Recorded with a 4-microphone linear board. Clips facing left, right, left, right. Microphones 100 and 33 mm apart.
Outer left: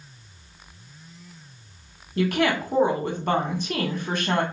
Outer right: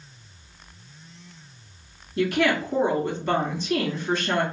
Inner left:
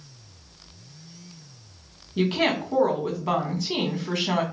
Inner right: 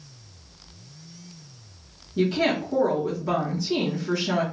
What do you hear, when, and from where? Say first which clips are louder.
2.2 s a woman speaking: even, even; 50° left (ahead or behind), 2 m